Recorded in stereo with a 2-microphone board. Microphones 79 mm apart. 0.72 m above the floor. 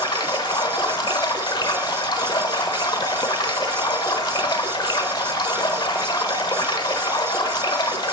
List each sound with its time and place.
0.0 s running water: 80° left, 1.0 m